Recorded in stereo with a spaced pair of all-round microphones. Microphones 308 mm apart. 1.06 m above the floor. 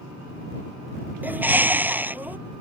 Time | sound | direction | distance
1.2 | a bird | 5° right (ahead or behind) | ?